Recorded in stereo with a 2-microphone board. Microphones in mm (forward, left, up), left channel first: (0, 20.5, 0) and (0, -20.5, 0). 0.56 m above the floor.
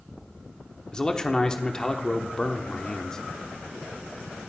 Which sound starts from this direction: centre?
A man speaking, at 0.9 s.